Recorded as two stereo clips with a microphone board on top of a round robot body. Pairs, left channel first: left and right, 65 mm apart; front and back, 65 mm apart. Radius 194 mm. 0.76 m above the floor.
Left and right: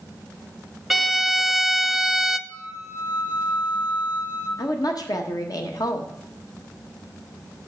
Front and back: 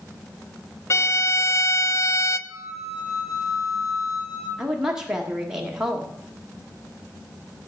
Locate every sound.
0.9 s a violin: 5° right, 0.7 m
2.5 s a flute: 90° left, 4.5 m
4.6 s a woman speaking: 100° left, 1.3 m